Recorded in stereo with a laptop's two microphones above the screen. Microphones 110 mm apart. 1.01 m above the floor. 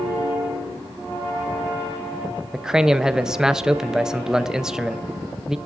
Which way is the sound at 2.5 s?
5° right (ahead or behind).